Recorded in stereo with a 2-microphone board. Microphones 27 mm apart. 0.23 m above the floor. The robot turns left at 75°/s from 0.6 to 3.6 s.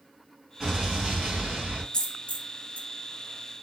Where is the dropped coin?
40° left (ahead or behind), 0.9 m; by 2.9 s 65° left (ahead or behind), 0.9 m.